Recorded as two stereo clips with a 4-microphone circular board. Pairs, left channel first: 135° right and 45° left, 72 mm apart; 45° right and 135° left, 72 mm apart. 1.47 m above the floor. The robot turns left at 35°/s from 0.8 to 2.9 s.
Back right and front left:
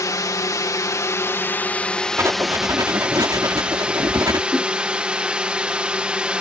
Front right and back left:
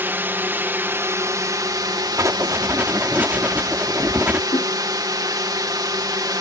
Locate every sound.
0.0 s a drone: 170° right; by 6.4 s 120° left
2.2 s writing: 95° left; by 4.4 s 70° left
4.5 s a whoosh: 40° right